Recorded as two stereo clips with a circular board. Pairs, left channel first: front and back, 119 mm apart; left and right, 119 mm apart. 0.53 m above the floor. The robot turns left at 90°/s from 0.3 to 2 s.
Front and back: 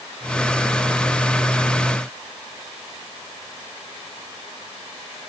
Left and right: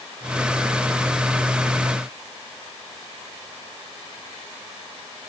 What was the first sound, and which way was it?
Only background noise.